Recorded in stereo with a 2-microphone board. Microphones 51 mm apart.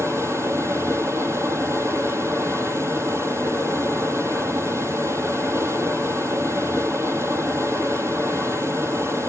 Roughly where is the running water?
Right.